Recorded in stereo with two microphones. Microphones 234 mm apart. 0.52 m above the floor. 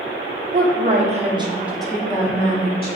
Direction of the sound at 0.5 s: 45° right (ahead or behind).